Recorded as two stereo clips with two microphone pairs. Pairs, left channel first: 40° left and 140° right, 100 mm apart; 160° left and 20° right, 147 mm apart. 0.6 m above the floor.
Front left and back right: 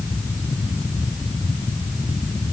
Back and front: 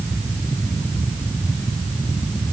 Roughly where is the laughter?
I don't hear laughter.